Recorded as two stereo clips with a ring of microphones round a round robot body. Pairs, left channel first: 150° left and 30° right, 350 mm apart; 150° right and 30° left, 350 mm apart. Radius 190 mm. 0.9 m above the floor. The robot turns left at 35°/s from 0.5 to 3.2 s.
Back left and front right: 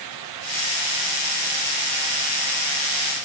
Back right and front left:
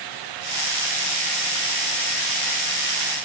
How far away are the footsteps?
No footsteps in this recording.